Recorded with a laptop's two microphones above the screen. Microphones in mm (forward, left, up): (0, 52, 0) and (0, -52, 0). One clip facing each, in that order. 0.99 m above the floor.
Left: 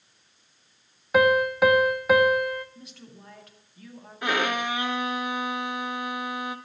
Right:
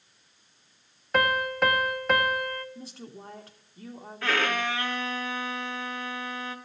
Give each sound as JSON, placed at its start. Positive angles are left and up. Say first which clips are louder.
{"t": 1.1, "sound": "a piano", "louder": "left 6 dB", "side_deg": 10, "distance_m": 0.9}
{"t": 2.8, "sound": "a woman speaking", "louder": "right 4 dB", "side_deg": -30, "distance_m": 2.0}
{"t": 4.2, "sound": "a violin", "louder": "left 1 dB", "side_deg": 15, "distance_m": 1.0}